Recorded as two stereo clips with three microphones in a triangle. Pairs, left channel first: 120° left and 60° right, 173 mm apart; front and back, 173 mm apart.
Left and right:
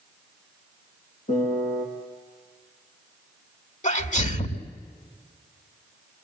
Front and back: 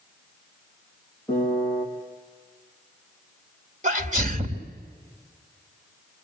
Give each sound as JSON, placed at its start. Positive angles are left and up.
{"t": 1.3, "sound": "a piano", "azimuth_deg": 80, "distance_m": 4.0}
{"t": 3.8, "sound": "a sneeze", "azimuth_deg": 150, "distance_m": 2.5}